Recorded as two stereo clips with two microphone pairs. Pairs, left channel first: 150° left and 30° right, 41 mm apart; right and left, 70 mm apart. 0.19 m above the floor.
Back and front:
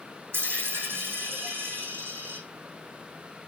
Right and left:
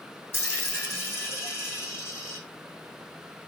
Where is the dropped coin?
35° right, 4.5 m.